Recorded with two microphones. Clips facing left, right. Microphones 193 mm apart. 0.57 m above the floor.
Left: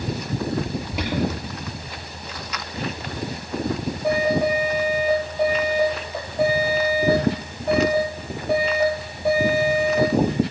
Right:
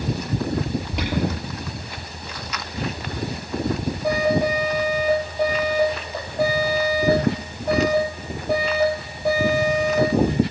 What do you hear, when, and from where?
0.9 s an alarm: centre (ahead or behind), 8.5 m